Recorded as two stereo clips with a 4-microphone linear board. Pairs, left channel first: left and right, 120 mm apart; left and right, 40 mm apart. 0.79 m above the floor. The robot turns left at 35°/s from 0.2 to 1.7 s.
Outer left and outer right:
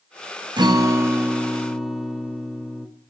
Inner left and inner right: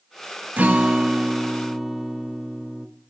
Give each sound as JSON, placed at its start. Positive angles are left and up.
{"t": 0.6, "sound": "a guitar", "azimuth_deg": -140, "distance_m": 0.6}